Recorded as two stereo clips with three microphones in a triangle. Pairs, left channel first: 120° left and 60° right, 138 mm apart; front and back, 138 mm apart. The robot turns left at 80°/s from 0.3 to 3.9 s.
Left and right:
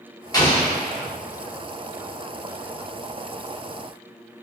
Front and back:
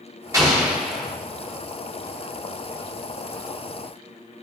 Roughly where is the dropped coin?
No dropped coin in this recording.